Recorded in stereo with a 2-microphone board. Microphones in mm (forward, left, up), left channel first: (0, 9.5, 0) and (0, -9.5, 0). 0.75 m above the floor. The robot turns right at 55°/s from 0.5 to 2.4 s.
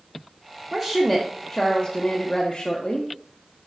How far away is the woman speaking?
About 0.9 m.